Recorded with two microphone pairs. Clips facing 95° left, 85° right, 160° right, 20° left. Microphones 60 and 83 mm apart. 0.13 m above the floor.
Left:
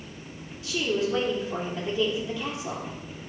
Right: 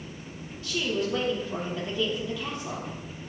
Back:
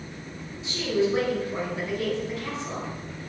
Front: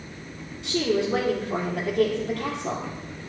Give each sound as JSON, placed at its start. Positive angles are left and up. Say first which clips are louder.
{"t": 0.6, "sound": "a woman speaking", "louder": "left 2 dB, front 1 dB", "azimuth_deg": 20, "distance_m": 3.0}